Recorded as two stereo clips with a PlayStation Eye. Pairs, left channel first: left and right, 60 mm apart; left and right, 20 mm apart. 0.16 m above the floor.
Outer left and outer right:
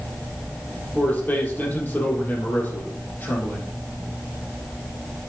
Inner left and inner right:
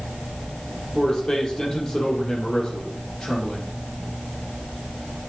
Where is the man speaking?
35° left (ahead or behind), 5 m.